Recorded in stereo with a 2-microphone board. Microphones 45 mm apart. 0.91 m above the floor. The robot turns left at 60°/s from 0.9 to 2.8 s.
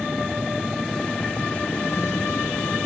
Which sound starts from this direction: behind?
A vehicle, at 0.0 s.